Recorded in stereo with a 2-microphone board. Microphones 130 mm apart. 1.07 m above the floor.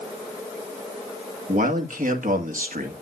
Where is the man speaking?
75° right (ahead or behind), 1.9 m.